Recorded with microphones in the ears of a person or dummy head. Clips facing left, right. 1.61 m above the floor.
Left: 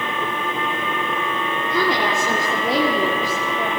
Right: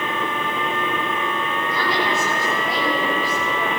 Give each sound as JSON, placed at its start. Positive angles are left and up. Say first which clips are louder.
{"t": 1.6, "sound": "a woman speaking", "louder": "left 4 dB", "side_deg": 50, "distance_m": 4.5}